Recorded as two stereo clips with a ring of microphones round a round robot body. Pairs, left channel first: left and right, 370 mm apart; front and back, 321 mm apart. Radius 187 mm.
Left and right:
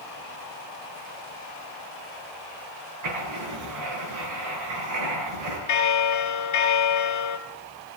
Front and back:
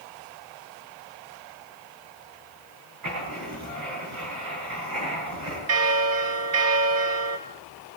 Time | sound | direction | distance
3.0 | writing | 135° right | 9 m
5.7 | a bell | 135° left | 2.5 m